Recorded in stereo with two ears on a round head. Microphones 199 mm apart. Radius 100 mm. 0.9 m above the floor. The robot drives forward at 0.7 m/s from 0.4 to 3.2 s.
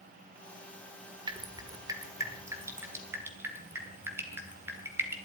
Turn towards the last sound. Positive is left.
turn(degrees=-10)  # may be behind; listen again after turning